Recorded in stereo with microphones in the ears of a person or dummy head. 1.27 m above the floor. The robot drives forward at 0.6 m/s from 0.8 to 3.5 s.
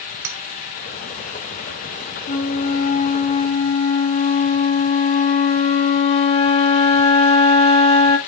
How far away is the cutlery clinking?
About 0.9 m.